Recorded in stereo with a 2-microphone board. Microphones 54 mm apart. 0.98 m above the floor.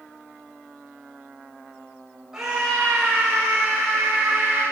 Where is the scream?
10° right (ahead or behind), 4.5 m; by 4.6 s 15° right (ahead or behind), 6.5 m.